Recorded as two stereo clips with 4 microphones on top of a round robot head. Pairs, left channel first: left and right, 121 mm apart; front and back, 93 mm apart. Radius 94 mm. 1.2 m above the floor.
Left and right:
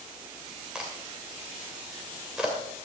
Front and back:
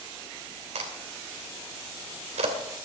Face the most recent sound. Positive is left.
turn(degrees=-175)